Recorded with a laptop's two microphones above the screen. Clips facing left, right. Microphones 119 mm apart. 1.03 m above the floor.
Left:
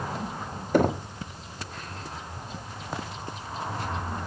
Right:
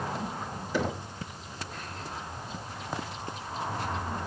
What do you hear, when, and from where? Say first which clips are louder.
0.7 s knocking: left 8 dB; 50° left (ahead or behind), 1.3 m